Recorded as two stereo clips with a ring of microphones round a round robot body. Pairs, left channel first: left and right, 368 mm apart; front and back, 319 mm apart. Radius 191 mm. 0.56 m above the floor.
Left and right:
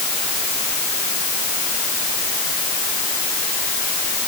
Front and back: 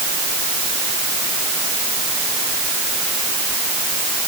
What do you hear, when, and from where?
Only background noise.